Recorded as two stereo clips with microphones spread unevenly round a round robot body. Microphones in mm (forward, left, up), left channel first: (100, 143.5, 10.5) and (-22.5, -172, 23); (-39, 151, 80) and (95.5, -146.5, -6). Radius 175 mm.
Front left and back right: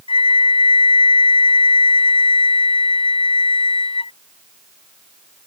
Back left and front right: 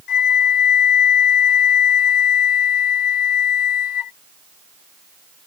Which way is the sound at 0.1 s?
145° left.